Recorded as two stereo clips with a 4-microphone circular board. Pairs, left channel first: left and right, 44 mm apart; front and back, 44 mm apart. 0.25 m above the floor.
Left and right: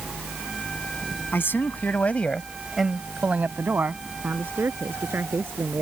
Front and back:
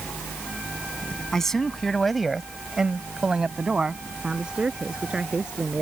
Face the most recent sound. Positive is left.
turn(degrees=-110)